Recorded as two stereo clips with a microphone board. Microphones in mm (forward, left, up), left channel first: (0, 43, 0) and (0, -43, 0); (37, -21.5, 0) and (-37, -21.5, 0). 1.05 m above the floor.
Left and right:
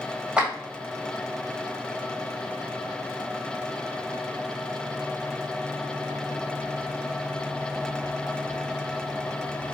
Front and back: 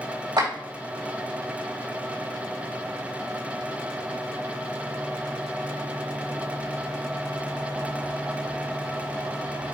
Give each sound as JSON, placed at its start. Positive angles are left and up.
{"t": 0.4, "sound": "a clap", "azimuth_deg": -165, "distance_m": 4.0}